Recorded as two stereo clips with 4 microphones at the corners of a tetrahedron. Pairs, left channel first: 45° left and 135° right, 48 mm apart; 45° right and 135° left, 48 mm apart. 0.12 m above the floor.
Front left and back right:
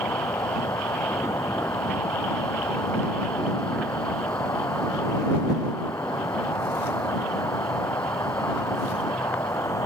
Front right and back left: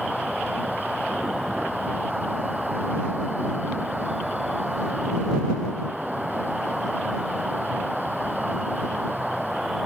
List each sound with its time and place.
0.0 s an insect: 50° left